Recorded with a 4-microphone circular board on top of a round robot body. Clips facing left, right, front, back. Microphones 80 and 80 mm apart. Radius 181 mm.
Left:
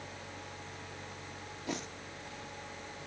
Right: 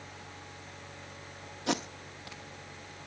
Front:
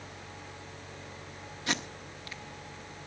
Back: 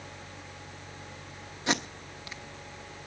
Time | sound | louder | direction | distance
1.7 | tape being pulled | right 7 dB, back 4 dB | 120° right | 0.7 m